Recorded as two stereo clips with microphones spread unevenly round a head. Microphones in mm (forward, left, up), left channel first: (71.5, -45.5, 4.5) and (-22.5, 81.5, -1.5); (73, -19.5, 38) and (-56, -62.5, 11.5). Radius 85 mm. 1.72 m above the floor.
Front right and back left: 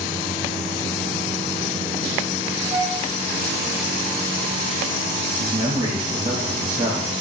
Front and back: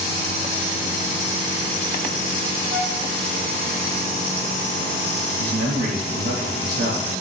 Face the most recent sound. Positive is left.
turn(degrees=-170)